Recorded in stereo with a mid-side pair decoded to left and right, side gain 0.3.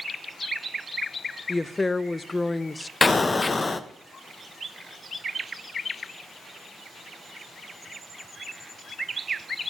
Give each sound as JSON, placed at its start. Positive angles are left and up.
{"t": 1.5, "sound": "a woman speaking", "azimuth_deg": 30, "distance_m": 0.8}
{"t": 3.0, "sound": "an explosion", "azimuth_deg": 35, "distance_m": 1.2}